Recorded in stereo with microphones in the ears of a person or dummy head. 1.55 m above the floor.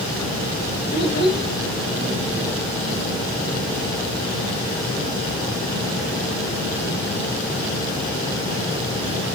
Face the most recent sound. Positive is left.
turn(degrees=25)  # may be behind; listen again after turning